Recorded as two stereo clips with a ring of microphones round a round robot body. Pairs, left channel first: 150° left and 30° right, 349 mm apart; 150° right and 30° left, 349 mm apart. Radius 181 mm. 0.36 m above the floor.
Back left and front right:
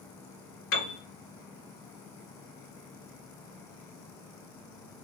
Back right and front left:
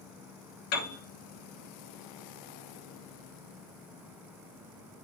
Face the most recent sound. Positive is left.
turn(degrees=-155)